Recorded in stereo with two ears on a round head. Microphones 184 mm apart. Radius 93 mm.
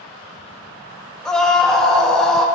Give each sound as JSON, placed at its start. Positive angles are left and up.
{"t": 1.2, "sound": "a scream", "side_deg": 5, "distance_m": 1.1}